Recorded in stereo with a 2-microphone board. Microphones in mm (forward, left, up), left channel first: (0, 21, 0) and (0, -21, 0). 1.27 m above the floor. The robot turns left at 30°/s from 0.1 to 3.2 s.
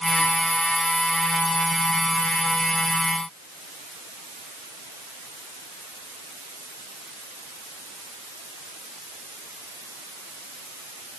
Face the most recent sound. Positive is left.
No sound to turn to.